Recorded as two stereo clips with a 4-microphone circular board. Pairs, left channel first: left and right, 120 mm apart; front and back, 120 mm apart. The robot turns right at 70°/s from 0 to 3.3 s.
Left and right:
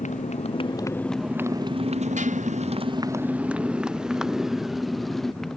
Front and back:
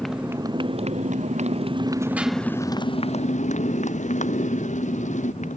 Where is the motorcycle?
85° left; by 5.6 s 5° left.